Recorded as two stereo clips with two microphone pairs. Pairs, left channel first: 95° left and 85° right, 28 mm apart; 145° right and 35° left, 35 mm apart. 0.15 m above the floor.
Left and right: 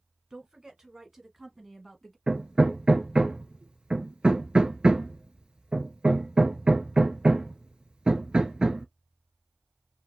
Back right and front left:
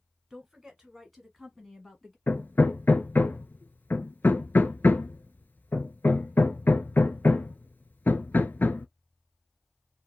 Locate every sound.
0.3 s a woman speaking: 45° right, 1.6 m; by 2.2 s 160° left, 1.4 m
2.3 s hammering: 135° right, 0.7 m